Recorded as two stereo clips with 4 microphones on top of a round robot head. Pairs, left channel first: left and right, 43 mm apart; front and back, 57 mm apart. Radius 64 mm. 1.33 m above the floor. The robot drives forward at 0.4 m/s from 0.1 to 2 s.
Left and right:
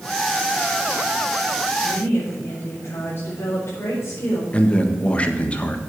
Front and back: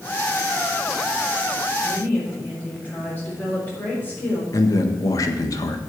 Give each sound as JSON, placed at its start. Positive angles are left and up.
{"t": 1.8, "sound": "a woman speaking", "azimuth_deg": 55, "distance_m": 4.0}
{"t": 4.5, "sound": "a man speaking", "azimuth_deg": 25, "distance_m": 1.5}